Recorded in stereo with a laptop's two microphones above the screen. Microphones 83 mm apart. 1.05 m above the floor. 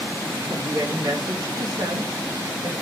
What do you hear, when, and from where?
0.5 s a woman speaking: 50° right (ahead or behind), 1.7 m